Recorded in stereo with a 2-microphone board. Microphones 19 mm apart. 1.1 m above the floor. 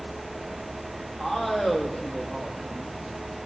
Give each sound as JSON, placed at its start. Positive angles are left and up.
{"t": 1.2, "sound": "a man speaking", "side_deg": 25, "distance_m": 2.5}